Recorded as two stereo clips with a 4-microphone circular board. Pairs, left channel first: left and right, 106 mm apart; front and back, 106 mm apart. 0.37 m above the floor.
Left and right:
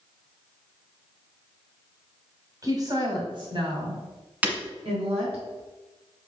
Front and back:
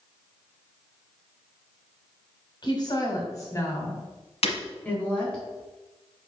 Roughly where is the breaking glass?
Ahead.